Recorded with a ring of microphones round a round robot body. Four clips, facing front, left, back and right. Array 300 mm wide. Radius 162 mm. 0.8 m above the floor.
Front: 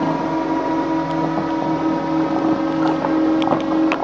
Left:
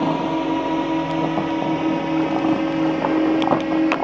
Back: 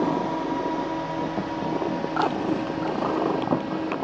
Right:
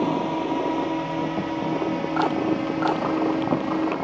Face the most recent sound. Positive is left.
turn(degrees=25)